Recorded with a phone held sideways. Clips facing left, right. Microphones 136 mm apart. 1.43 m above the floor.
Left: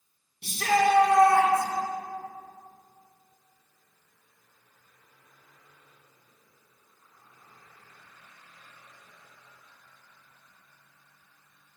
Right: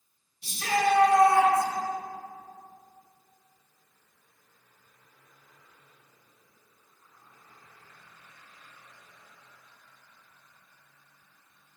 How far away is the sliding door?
I don't hear a sliding door.